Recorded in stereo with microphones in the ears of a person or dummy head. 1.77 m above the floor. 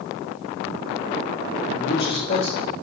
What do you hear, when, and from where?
1.7 s a man speaking: 25° left (ahead or behind), 3 m; by 2.7 s 45° left (ahead or behind), 3 m